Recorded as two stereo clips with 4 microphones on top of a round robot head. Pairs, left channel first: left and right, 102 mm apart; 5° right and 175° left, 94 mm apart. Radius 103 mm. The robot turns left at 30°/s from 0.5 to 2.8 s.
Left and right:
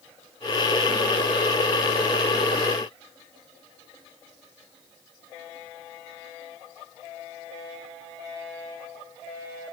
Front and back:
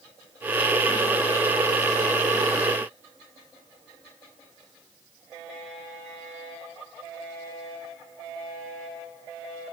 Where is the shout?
No shout in this recording.